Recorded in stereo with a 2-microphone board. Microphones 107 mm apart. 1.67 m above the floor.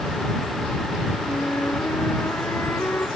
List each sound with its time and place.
1.3 s a flute: 25° left (ahead or behind)